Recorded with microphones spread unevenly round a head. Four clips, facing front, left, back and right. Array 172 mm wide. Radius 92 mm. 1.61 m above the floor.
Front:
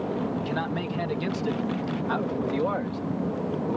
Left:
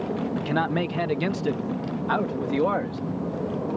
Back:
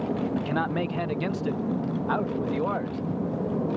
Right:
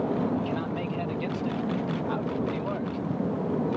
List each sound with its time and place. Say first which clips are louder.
0.4 s a man speaking: left 5 dB, back 2 dB; 110° left; by 3.0 s 85° left